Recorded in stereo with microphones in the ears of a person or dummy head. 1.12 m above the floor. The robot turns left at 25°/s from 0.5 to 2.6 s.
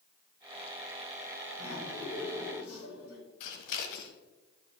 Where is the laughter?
55° left (ahead or behind), 4 m; by 3.2 s 80° left, 4 m.